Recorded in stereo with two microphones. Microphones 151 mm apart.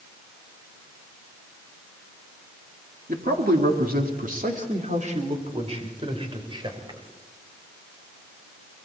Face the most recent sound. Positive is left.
turn(degrees=-30)  # may be behind; listen again after turning